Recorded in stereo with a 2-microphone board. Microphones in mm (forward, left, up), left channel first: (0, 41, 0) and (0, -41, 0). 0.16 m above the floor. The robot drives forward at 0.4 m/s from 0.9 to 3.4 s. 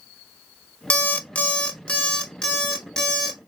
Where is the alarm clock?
20° left (ahead or behind), 0.5 m; by 3.4 s 10° left (ahead or behind), 1.2 m.